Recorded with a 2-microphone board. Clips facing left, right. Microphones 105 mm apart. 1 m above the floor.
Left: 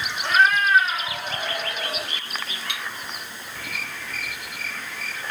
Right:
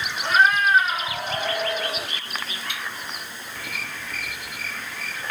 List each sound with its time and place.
0.2 s a cat meowing: 10° right (ahead or behind), 1.2 m; by 2.1 s 40° right (ahead or behind), 1.2 m
2.7 s cutlery clinking: 75° left (ahead or behind), 1.6 m